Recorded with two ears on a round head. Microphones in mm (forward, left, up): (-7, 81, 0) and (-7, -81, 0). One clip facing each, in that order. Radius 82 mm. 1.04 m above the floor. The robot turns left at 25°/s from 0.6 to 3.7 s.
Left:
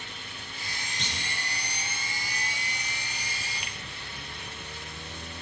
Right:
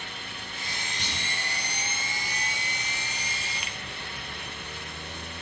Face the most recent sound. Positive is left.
turn(degrees=-65)  # may be behind; listen again after turning